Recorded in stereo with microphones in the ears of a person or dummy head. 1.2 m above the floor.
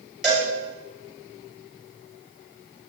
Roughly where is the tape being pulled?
I don't hear tape being pulled.